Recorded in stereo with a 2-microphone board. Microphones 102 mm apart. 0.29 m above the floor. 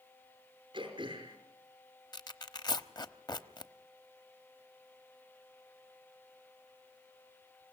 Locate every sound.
0.7 s throat clearing: 55° right (ahead or behind), 5 m
2.1 s tearing paper: 45° left (ahead or behind), 1.0 m